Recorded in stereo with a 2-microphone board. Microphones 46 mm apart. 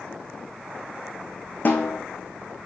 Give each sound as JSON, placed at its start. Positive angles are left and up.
{"t": 1.6, "sound": "a snare drum", "side_deg": 40, "distance_m": 1.2}